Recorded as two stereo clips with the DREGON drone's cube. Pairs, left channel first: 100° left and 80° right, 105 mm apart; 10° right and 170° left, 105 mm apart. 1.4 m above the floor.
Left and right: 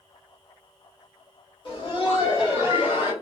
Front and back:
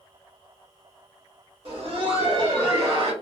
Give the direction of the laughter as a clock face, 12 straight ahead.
7 o'clock.